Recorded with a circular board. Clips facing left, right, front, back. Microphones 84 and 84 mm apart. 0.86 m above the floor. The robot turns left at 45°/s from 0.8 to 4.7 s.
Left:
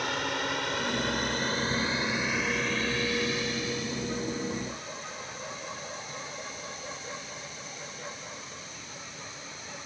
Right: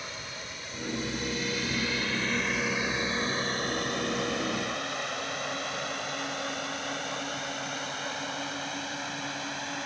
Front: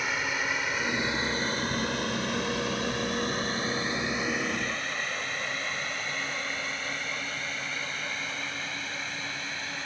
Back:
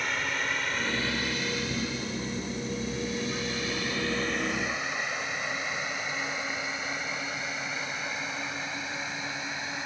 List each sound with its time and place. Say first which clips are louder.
0.0 s a drone: left 10 dB, front 1 dB; 85° left; by 9.8 s 105° right